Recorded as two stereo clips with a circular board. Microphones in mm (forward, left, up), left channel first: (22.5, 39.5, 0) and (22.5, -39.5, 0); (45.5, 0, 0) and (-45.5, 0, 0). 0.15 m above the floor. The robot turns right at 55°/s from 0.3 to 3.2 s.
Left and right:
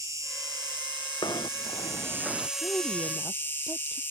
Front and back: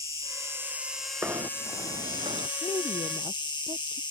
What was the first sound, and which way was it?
An insect, 135° right.